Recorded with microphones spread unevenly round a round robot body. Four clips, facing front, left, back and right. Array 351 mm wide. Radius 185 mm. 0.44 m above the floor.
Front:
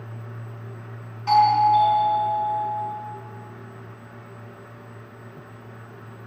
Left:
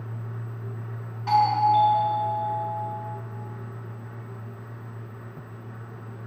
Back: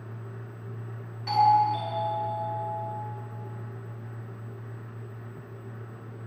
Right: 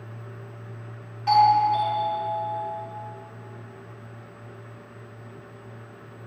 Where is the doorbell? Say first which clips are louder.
Right 2 dB, front 5 dB; 145° right, 4 m.